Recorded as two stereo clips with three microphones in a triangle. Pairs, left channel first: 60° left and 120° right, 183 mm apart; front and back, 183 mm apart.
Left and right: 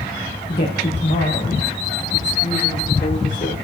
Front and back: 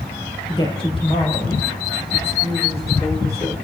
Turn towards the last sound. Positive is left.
turn(degrees=55)